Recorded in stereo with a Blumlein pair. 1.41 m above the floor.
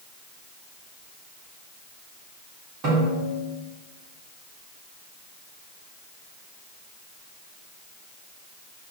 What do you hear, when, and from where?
2.8 s a snare drum: 35° right, 3.5 m